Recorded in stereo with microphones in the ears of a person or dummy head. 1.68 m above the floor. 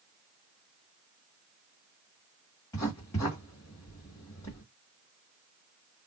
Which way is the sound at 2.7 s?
15° left (ahead or behind).